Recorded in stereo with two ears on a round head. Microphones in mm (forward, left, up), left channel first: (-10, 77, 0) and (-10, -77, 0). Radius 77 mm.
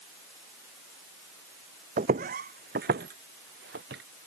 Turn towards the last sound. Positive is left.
turn(degrees=-65)  # may be behind; listen again after turning